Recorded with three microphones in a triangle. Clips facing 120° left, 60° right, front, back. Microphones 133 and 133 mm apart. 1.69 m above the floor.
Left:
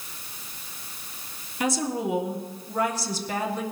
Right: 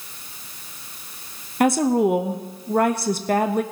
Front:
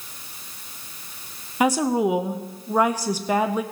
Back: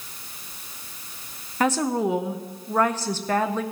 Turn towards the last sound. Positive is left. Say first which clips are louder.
# right 9 dB, front 2 dB
turn(degrees=-75)